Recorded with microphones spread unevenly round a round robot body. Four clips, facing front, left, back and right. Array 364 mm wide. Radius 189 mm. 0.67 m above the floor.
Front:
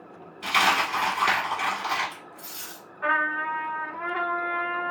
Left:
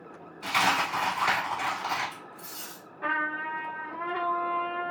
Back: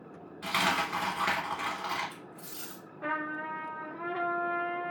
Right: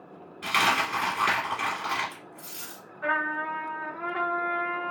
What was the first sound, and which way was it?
A dropped coin, 130° right.